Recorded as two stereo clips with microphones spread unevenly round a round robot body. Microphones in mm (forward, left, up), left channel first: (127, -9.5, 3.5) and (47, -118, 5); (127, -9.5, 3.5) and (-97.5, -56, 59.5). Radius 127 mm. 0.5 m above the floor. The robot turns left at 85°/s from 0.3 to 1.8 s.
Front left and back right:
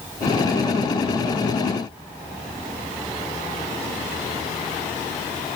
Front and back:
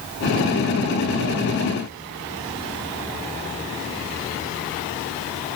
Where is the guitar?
I don't hear a guitar.